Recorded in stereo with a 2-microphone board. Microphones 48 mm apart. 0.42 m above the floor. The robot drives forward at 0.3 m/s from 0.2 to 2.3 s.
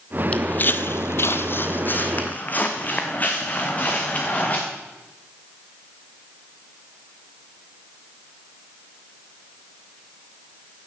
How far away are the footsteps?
About 0.7 m.